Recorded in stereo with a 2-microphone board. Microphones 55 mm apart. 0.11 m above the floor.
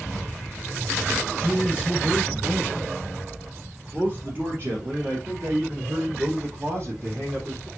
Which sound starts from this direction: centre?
A man speaking, at 1.3 s.